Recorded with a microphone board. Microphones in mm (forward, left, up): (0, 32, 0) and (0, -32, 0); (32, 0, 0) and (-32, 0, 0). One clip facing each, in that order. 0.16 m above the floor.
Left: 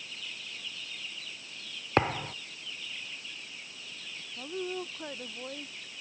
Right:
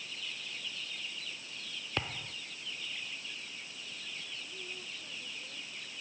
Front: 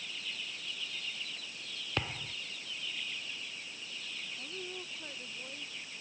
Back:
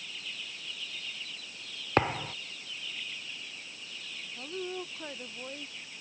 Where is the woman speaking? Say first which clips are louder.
Left 10 dB, back 11 dB; 120° left.